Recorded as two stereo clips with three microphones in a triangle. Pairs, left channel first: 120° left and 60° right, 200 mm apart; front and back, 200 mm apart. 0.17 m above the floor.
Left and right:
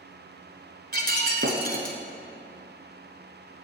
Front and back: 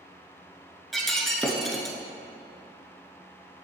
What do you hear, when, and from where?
0.9 s breaking glass: 90° right, 1.0 m